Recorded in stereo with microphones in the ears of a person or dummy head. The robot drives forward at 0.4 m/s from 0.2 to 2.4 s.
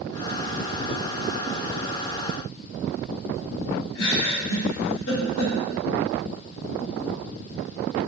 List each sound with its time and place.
4.0 s a giggle: 70° left (ahead or behind), 1.0 m